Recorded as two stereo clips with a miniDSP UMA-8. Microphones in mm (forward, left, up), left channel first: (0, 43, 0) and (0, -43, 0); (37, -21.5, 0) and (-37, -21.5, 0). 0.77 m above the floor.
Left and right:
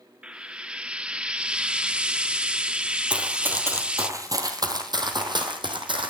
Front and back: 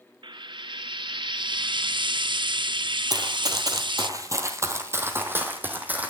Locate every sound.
0.2 s frying: 170° right, 0.5 m
3.1 s running footsteps: 165° right, 1.4 m; by 6.1 s 110° right, 2.5 m